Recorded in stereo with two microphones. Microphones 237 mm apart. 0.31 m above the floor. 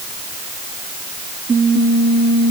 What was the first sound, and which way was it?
Only background noise.